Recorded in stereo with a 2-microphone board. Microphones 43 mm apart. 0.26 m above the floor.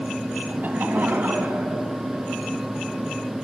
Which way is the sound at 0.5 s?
40° right (ahead or behind).